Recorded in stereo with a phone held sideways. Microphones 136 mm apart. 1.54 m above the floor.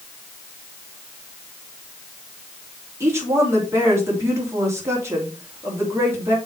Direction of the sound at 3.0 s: 20° right (ahead or behind).